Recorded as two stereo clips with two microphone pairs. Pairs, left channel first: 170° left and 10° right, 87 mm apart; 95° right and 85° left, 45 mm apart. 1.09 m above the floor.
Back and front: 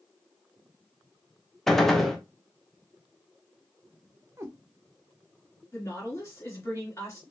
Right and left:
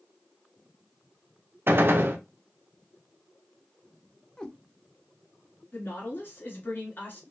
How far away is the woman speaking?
About 2.5 m.